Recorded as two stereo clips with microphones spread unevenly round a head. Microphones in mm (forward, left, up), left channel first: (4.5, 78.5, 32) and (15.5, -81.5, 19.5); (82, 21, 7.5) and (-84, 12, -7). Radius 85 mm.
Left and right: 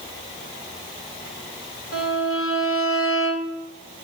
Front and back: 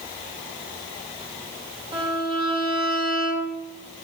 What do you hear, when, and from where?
1.9 s a violin: 125° left, 2 m